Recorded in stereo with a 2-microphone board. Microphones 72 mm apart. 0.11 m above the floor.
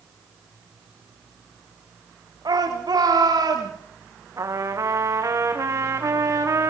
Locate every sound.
2.5 s a shout: 80° right, 9 m; by 3.7 s 70° right (ahead or behind), 10.5 m
4.4 s a trumpet: 50° right (ahead or behind), 3.5 m